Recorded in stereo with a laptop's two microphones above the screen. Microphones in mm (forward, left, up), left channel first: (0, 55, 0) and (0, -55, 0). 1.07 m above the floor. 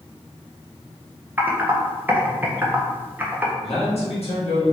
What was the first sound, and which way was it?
Typing on a keyboard, 15° right (ahead or behind).